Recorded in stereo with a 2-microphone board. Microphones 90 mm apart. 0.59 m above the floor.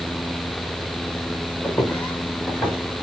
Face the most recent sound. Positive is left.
turn(degrees=15)  # may be behind; listen again after turning